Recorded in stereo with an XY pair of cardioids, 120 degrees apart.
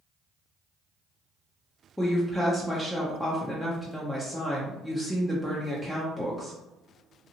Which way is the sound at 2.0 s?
5° left.